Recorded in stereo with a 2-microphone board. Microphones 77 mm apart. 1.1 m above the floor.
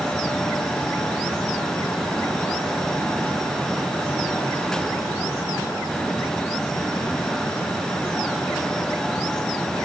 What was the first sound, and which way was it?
Only background noise.